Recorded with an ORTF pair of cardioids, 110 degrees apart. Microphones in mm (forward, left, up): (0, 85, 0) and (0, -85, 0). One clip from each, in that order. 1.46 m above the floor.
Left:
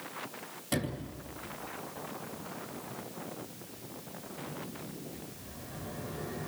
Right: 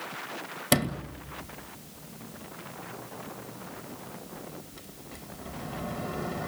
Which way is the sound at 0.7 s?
70° right.